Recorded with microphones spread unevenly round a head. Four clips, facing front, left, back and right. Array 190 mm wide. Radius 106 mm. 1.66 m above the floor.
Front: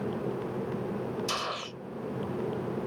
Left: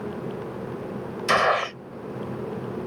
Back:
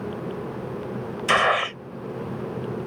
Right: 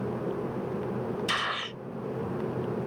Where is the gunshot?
130° left.